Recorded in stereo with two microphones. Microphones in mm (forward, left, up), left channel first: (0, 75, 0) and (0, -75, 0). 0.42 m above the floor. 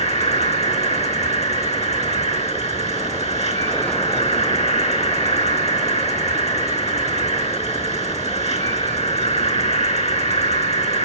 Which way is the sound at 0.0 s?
50° left (ahead or behind).